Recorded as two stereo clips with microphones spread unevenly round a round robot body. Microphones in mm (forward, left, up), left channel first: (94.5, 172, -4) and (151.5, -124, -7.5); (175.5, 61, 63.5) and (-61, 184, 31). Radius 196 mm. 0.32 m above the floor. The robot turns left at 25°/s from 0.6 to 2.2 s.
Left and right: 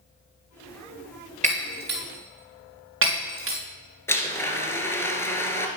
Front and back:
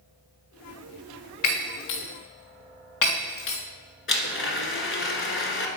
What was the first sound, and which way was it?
Breaking glass, 10° right.